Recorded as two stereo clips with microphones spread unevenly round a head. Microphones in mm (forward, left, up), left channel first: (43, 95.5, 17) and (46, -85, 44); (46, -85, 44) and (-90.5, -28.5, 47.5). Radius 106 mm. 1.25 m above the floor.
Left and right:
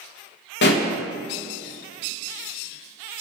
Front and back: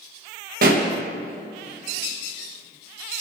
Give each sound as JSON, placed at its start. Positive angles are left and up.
{"t": 0.6, "sound": "a pop", "azimuth_deg": 120, "distance_m": 1.5}